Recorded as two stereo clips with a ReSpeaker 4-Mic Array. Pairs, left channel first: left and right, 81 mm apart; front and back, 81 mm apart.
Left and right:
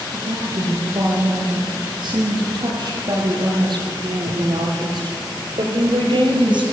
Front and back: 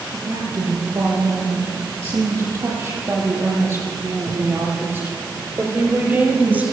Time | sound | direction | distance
0.1 | a woman speaking | 135° right | 9.5 m